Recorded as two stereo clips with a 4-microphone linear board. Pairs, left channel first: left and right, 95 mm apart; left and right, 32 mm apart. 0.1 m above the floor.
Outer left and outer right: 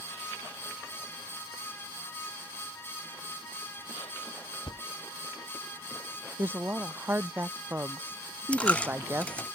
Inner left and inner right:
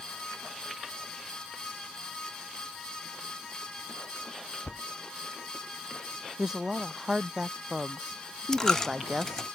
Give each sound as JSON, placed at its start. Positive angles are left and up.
{"t": 4.7, "sound": "a thud", "side_deg": 60}
{"t": 6.4, "sound": "a woman speaking", "side_deg": -20}
{"t": 8.5, "sound": "a dropped coin", "side_deg": 15}